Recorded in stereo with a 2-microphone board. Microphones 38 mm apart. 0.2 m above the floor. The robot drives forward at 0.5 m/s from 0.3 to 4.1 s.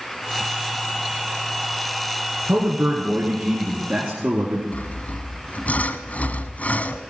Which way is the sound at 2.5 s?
50° right (ahead or behind).